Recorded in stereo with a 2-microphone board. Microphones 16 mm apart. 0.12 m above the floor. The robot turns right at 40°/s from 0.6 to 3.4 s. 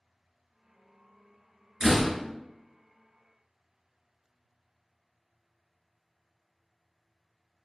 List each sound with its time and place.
1.8 s a door slam: 10° right (ahead or behind), 1.2 m; by 2.1 s centre (ahead or behind), 1.2 m